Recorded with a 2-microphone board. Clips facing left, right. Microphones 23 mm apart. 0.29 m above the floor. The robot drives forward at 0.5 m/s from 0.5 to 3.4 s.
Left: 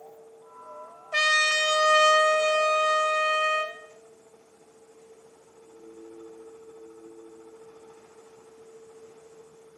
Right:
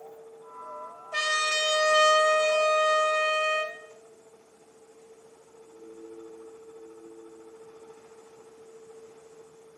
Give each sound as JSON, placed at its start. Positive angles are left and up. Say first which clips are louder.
{"t": 1.1, "sound": "a trumpet", "louder": "left 4 dB", "side_deg": 30, "distance_m": 1.0}